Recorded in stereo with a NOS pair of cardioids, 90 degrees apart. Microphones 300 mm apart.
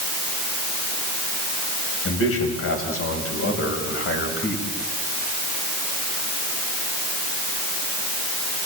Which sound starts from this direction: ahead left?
A man speaking, at 2.0 s.